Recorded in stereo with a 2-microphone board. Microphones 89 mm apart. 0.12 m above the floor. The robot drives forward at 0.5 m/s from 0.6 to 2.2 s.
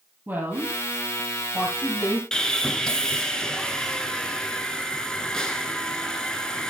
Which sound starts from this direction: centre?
Sawing, at 2.3 s.